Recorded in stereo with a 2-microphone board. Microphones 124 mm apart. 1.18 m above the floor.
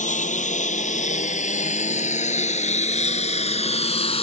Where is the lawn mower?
75° left (ahead or behind); by 4.2 s 50° left (ahead or behind).